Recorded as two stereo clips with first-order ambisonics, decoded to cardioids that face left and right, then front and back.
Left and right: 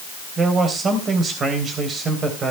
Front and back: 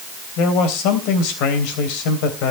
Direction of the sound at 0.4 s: 25° right.